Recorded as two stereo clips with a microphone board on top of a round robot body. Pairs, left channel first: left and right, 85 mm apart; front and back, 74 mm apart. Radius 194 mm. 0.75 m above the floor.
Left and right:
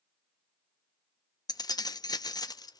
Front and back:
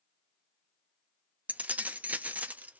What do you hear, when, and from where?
1.5 s keys jangling: 115° left, 0.5 m